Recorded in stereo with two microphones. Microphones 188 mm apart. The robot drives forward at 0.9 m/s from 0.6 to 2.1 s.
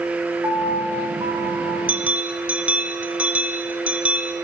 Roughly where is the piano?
Right.